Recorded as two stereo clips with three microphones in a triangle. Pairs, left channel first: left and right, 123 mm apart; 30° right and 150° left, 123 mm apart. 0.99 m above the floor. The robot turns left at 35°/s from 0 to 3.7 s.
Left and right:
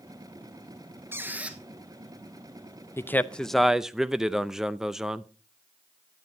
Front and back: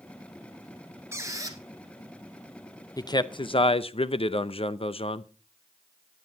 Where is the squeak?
150° right, 1.2 m; by 1.6 s 170° right, 1.2 m.